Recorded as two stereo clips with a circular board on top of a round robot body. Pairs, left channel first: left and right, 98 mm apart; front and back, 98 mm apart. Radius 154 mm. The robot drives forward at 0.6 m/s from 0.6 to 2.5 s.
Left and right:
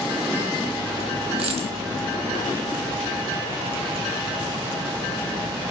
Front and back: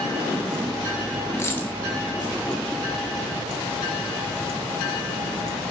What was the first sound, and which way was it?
A dropped coin, 65° right.